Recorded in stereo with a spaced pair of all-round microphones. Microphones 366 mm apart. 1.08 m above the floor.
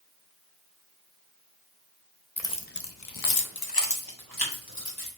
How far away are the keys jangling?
About 0.6 m.